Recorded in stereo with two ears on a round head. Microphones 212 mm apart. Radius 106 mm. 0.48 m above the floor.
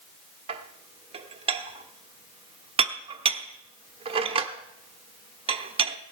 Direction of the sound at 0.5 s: 25° right (ahead or behind).